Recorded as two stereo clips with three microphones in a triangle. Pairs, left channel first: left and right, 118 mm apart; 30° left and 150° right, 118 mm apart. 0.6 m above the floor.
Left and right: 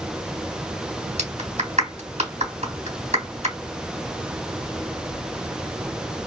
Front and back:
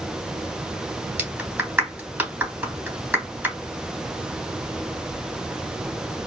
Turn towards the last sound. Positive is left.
turn(degrees=-75)